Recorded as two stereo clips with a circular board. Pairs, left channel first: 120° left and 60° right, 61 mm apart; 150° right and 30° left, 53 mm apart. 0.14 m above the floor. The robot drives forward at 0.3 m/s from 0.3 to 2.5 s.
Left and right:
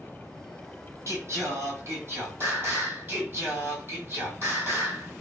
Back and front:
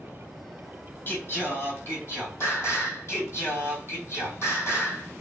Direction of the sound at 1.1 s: 100° right.